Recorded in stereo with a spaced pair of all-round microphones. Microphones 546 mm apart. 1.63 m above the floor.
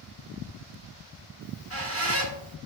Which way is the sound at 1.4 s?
25° right (ahead or behind).